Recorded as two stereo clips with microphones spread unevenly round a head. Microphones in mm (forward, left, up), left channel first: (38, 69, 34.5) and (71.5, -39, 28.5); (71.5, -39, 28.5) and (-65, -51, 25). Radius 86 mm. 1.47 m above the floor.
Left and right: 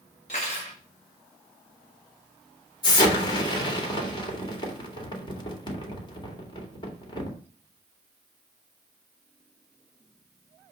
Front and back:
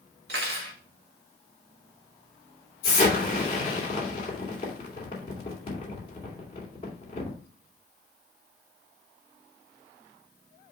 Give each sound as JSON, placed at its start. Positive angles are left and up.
{"t": 0.3, "sound": "cutlery clinking", "azimuth_deg": 160, "distance_m": 1.6}
{"t": 2.8, "sound": "an explosion", "azimuth_deg": 65, "distance_m": 2.5}